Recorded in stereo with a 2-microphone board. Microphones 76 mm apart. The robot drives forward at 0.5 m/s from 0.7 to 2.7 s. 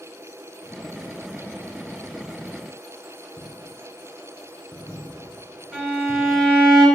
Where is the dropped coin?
15° left (ahead or behind), 1.6 m.